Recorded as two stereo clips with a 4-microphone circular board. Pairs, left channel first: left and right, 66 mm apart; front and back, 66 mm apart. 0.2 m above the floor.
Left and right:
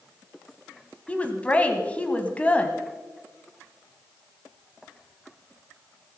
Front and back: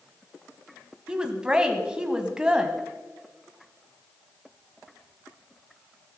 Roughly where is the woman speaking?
Behind left.